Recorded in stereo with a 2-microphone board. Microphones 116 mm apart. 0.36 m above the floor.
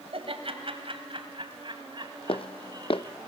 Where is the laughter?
55° right (ahead or behind), 2.5 m; by 3.2 s 35° right (ahead or behind), 3.5 m.